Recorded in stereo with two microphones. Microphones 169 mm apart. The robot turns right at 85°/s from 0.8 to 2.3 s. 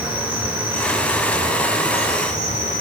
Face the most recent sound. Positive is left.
turn(degrees=120)